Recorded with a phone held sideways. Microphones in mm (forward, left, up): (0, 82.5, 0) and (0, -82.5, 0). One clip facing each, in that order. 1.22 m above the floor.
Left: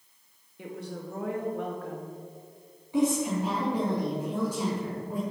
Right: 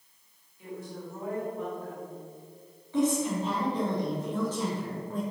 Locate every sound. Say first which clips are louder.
0.6 s a woman speaking: left 2 dB; 75° left (ahead or behind), 2 m
2.9 s a woman speaking: left 1 dB; 15° left (ahead or behind), 2.5 m